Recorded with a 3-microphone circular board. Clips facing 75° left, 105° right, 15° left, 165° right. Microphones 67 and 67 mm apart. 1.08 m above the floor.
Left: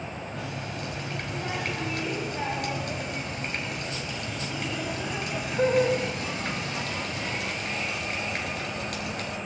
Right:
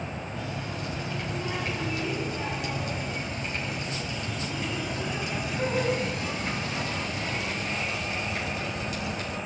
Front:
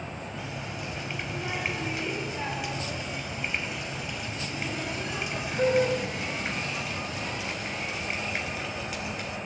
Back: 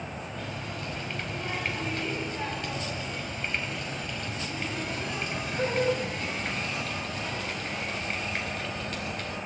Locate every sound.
0.3 s a running tap: 95° left, 5 m